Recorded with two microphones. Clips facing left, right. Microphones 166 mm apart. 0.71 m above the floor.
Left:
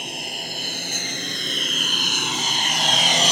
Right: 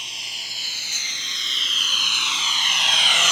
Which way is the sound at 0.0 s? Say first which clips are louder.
Left 12 dB; 55° left (ahead or behind).